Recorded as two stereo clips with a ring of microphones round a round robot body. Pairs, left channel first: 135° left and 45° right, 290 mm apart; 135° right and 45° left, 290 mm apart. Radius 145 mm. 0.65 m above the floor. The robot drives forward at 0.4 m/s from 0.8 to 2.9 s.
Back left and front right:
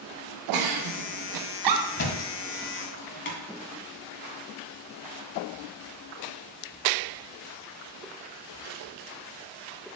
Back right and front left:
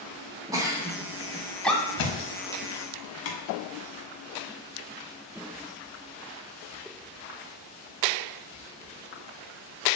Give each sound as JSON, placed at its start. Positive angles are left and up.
{"t": 0.5, "sound": "a giggle", "azimuth_deg": -35, "distance_m": 1.0}
{"t": 2.0, "sound": "a thud", "azimuth_deg": -170, "distance_m": 1.1}